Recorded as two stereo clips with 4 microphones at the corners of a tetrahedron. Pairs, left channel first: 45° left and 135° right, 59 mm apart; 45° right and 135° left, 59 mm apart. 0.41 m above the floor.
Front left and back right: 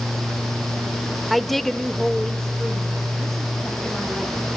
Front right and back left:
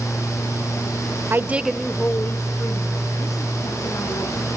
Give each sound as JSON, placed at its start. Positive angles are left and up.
{"t": 1.3, "sound": "a woman speaking", "azimuth_deg": 135, "distance_m": 1.0}